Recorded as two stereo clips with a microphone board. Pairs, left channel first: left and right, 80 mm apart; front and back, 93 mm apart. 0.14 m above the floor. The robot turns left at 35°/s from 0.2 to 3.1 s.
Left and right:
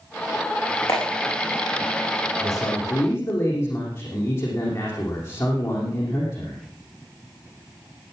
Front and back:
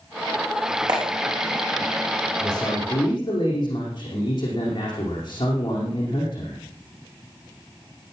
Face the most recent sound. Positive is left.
turn(degrees=45)